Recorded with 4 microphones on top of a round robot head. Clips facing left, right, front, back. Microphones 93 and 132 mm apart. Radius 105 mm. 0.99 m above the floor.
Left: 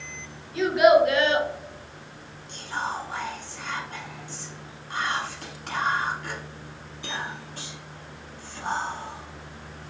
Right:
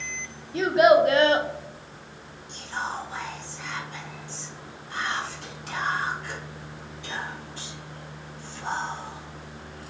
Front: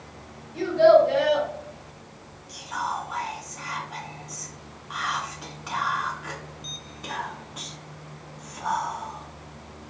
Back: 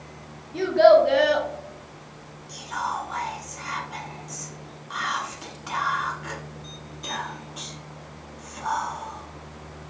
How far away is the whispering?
About 1.1 m.